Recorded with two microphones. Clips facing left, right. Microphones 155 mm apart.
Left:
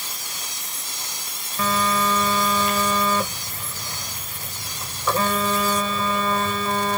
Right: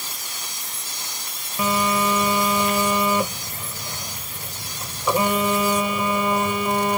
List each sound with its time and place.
1.6 s a phone buzzing: 15° right (ahead or behind)